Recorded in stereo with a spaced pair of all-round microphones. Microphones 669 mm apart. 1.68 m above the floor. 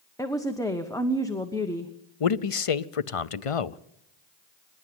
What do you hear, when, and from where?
0.2 s a woman speaking: 5° left (ahead or behind), 1.1 m
2.2 s a man speaking: 55° left (ahead or behind), 0.7 m